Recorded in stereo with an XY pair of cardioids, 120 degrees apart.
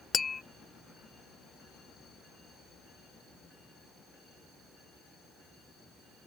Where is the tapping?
30° left.